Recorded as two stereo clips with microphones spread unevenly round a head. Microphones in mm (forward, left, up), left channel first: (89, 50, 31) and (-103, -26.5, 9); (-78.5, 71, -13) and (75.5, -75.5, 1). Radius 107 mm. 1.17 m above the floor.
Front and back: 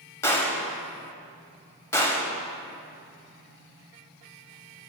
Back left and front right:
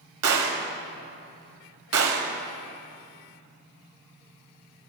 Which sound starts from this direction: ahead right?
A gunshot, at 0.2 s.